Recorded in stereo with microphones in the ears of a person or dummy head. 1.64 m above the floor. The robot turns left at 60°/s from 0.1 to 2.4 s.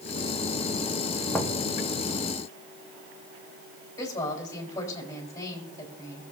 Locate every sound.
1.3 s knocking: 10° left (ahead or behind), 1.0 m; by 1.6 s 30° left (ahead or behind), 1.0 m
4.0 s a woman speaking: 15° left (ahead or behind), 4 m